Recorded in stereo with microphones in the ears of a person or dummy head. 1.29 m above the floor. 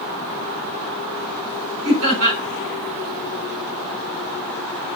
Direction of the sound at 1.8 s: 75° right (ahead or behind).